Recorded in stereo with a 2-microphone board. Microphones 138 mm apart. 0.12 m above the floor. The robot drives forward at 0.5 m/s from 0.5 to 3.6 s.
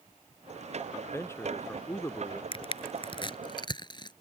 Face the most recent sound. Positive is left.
turn(degrees=35)  # may be behind; listen again after turning